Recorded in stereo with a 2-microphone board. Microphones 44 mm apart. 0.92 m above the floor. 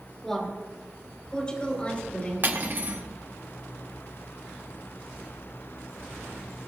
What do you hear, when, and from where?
0.2 s a woman speaking: 10° left (ahead or behind), 3.5 m; by 2.5 s 35° left (ahead or behind), 4 m
2.4 s cutlery clinking: 50° right (ahead or behind), 1.2 m